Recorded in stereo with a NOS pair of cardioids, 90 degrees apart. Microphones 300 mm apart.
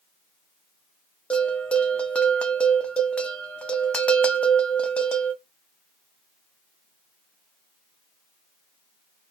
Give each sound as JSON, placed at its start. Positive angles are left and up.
{"t": 1.3, "sound": "a bell", "azimuth_deg": 5, "distance_m": 0.5}